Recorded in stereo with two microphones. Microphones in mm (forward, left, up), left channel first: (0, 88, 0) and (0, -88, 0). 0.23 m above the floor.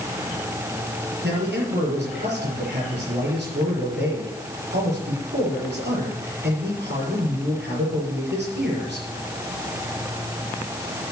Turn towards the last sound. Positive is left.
turn(degrees=-75)  # may be behind; listen again after turning